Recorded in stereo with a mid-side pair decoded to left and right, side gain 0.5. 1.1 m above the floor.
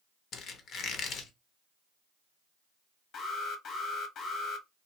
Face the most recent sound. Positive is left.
turn(degrees=60)